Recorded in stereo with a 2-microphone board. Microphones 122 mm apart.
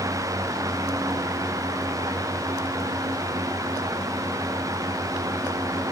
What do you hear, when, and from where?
Only background noise.